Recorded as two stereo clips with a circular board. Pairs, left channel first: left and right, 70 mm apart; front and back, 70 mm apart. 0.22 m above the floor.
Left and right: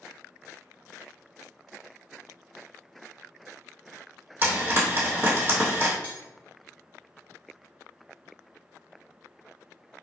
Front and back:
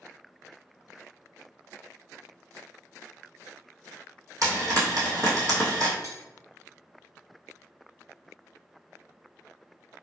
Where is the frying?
145° right, 1.8 m.